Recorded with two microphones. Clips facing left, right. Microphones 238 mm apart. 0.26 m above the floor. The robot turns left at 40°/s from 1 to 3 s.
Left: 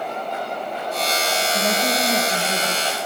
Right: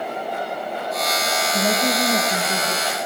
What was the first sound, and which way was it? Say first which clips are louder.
A woman speaking: right 3 dB; 145° right.